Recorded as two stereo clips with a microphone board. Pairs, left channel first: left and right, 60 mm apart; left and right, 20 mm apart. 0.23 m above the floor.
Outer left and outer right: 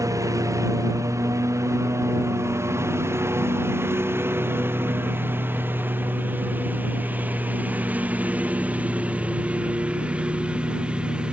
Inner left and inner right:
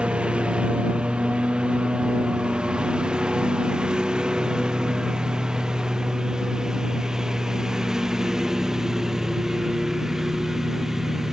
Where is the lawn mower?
65° right (ahead or behind); by 11.3 s 20° right (ahead or behind).